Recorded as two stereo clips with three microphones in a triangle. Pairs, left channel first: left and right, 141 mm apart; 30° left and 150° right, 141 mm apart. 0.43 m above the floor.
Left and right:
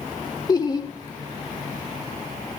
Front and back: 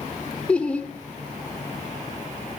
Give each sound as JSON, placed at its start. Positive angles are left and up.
{"t": 0.5, "sound": "laughter", "azimuth_deg": 100, "distance_m": 0.8}